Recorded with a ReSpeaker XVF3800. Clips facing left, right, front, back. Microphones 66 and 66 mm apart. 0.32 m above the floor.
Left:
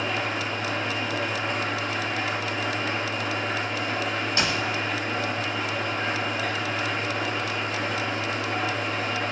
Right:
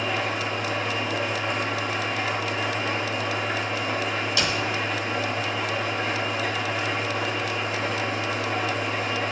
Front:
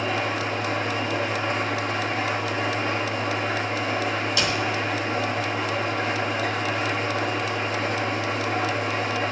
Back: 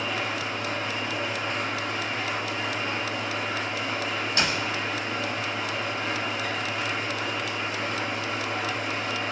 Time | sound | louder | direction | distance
0.0 | an engine running | right 1 dB, front 4 dB | 5° right | 5.5 m
4.4 | a door slam | left 1 dB, even | 140° left | 1.7 m